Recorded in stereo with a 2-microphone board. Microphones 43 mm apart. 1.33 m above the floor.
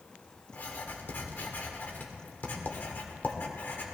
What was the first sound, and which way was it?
Writing, 50° left (ahead or behind).